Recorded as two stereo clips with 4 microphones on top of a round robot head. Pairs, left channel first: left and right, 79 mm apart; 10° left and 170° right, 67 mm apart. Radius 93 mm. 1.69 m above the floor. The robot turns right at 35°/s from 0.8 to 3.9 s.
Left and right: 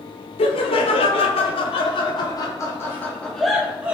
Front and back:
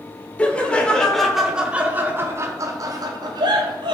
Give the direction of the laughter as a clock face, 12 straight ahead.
9 o'clock.